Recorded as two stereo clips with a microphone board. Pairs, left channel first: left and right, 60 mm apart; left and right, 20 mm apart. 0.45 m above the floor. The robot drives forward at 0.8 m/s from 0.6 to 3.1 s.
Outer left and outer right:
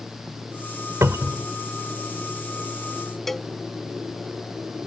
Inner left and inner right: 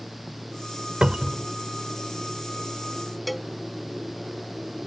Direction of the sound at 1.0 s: 55° right (ahead or behind).